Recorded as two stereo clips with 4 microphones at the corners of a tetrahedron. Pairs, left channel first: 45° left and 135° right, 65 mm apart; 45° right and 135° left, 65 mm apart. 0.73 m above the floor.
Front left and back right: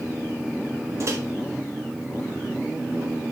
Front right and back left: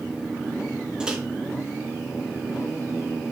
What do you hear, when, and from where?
1.0 s a microwave: 150° right, 1.2 m